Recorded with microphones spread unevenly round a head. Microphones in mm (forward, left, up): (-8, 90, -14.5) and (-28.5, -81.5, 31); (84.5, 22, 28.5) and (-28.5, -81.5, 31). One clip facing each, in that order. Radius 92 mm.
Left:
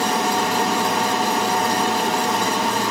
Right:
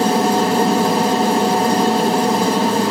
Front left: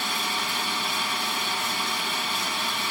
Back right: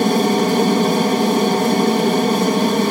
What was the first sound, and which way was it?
An aircraft, 155° right.